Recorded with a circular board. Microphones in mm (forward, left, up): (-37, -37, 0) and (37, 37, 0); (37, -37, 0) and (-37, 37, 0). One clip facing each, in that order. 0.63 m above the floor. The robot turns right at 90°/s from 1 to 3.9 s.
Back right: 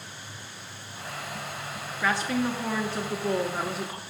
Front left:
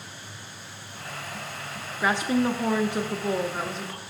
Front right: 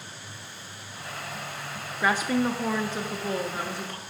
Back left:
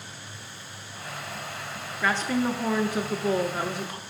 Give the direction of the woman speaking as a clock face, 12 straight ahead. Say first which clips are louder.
Front left 3 dB, front right 1 dB; 12 o'clock.